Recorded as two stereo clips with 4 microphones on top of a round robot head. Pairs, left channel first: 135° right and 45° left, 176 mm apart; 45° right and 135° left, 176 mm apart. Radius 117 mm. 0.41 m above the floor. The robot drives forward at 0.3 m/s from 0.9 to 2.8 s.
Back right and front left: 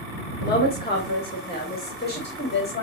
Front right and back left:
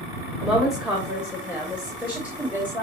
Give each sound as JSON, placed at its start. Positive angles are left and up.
{"t": 0.4, "sound": "a woman speaking", "azimuth_deg": -140, "distance_m": 2.5}